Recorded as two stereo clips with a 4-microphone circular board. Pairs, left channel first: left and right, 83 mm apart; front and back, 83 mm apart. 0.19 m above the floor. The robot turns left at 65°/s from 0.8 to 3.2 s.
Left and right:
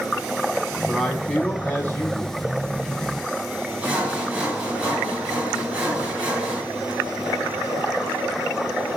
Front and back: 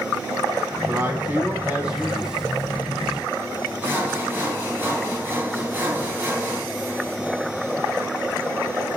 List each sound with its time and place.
0.9 s a man speaking: straight behind, 1.3 m; by 2.4 s 85° left, 1.3 m
3.8 s sawing: 150° right, 1.2 m